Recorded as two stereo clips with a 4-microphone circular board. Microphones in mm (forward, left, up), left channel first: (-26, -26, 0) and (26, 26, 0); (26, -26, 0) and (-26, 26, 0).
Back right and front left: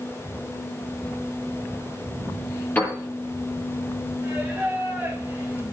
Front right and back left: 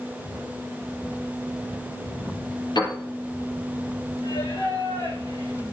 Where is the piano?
65° right, 6.5 m.